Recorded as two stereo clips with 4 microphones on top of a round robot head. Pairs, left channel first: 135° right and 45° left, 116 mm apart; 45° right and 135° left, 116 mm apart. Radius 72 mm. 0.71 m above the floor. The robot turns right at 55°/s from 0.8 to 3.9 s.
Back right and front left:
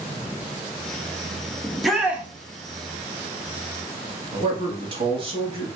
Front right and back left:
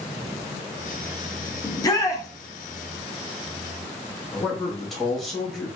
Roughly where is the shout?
Ahead right.